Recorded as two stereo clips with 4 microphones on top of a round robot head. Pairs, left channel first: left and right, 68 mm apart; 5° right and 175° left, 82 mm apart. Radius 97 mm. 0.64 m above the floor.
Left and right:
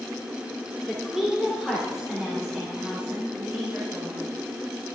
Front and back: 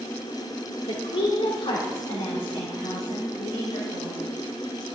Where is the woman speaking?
Straight ahead, 2.5 m; by 4.3 s 20° right, 4.5 m.